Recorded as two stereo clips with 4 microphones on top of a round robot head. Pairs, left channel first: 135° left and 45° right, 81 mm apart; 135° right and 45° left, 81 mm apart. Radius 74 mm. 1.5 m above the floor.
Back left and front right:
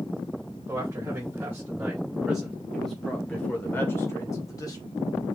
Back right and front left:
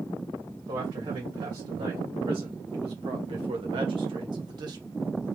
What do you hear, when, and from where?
0.7 s a man speaking: 10° left, 1.9 m; by 4.8 s 90° left, 1.5 m